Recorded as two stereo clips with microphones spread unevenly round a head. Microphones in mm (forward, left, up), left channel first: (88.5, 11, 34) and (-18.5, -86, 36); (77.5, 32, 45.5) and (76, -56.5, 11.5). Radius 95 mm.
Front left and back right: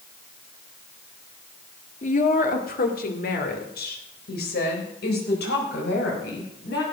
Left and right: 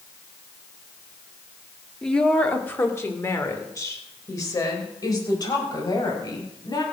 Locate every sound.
2.0 s a woman speaking: 5° left, 1.9 m; by 6.8 s 50° left, 6 m